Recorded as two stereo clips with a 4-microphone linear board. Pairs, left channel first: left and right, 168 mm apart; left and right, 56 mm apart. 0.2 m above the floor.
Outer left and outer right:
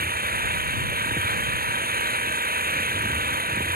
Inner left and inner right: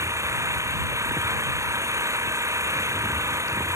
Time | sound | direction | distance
0.0 | an engine running | 60° right (ahead or behind) | ?